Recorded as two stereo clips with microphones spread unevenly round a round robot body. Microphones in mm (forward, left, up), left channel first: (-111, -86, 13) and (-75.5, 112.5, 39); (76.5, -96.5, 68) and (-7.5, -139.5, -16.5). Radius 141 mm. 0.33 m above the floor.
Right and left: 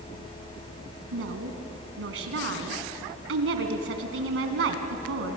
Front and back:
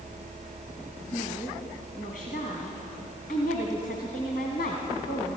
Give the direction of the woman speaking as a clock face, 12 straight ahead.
9 o'clock.